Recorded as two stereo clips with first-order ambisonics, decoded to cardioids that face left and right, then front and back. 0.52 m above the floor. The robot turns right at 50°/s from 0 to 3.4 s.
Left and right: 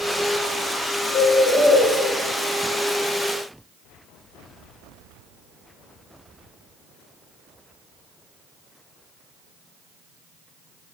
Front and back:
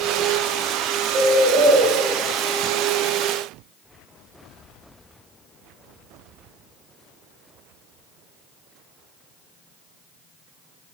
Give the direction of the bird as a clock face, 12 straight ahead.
8 o'clock.